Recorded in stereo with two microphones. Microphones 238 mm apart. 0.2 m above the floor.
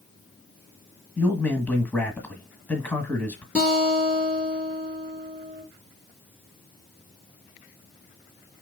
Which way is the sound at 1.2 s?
5° left (ahead or behind).